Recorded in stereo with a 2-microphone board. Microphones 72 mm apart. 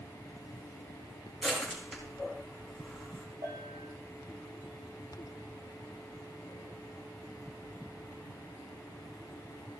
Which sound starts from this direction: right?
A bell, at 3.4 s.